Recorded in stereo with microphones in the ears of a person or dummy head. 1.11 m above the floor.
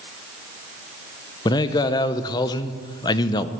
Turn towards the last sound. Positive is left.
turn(degrees=20)  # may be behind; listen again after turning